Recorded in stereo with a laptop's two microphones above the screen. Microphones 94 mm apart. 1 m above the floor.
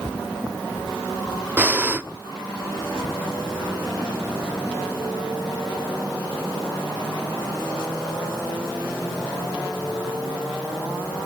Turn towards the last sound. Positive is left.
turn(degrees=-20)  # may be behind; listen again after turning